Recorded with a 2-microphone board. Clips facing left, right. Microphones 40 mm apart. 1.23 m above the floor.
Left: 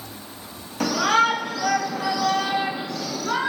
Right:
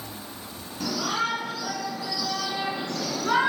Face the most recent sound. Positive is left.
turn(degrees=-20)  # may be behind; listen again after turning